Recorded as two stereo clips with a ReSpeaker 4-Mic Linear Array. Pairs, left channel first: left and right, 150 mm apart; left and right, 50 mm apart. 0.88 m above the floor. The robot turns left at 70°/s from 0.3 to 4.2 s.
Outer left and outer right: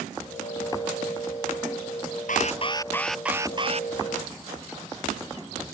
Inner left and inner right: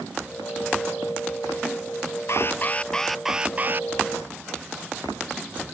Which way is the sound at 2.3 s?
60° left.